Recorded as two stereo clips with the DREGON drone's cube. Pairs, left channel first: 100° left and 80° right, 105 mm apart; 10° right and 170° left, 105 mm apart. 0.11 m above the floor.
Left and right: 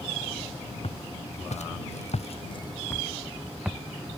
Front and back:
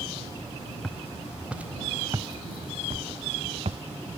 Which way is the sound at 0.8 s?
75° left.